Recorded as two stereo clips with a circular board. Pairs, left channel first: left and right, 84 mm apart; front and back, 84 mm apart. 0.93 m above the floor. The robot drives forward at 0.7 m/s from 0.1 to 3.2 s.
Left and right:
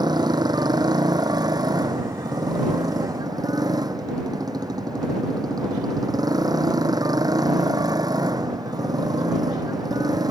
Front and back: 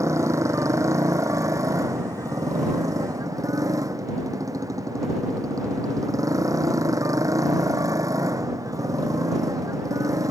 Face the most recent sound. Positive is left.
turn(degrees=-130)